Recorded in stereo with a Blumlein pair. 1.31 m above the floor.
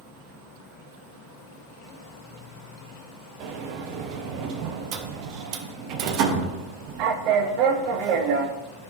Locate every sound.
0.0 s an insect: 20° left, 1.0 m
3.4 s a sliding door: 40° right, 0.7 m